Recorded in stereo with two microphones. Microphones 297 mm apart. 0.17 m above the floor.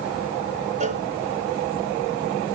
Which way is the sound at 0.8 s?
25° right (ahead or behind).